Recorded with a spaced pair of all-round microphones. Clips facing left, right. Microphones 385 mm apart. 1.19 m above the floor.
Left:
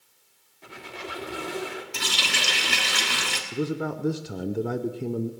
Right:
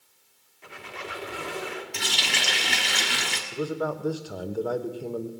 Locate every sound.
0.6 s a squeak: 50° left (ahead or behind), 1.5 m
1.9 s a running tap: 15° left (ahead or behind), 1.5 m
3.5 s a man speaking: 35° left (ahead or behind), 0.6 m